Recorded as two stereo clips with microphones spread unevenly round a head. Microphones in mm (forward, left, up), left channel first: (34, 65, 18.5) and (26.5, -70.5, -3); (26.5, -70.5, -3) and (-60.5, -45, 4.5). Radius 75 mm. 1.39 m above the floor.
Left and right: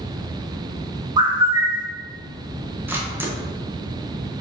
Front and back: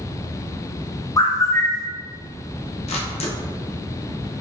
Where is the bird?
45° right, 0.6 m.